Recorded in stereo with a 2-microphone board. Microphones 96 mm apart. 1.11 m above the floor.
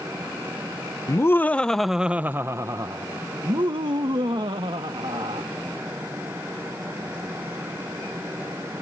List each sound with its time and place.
1.1 s laughter: 30° left (ahead or behind); by 5.5 s 70° right (ahead or behind)